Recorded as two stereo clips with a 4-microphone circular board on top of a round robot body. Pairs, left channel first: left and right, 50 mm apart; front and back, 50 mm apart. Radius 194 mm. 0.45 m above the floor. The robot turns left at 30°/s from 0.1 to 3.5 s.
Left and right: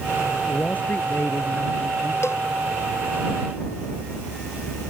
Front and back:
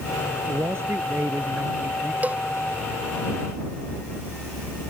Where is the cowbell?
125° left; by 2.4 s 120° left.